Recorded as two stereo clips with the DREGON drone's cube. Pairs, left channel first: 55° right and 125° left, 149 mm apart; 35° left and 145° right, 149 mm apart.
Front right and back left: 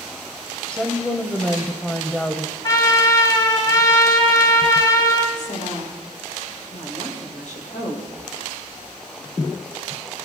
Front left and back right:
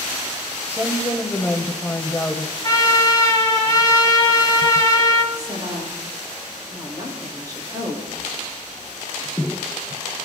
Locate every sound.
0.7 s a woman speaking: 10° left, 1.1 m
2.6 s a trumpet: 10° right, 2 m
5.3 s a woman speaking: 85° right, 6 m